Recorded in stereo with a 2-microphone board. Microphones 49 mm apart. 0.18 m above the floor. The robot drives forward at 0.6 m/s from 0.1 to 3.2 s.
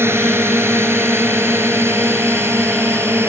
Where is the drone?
60° right (ahead or behind).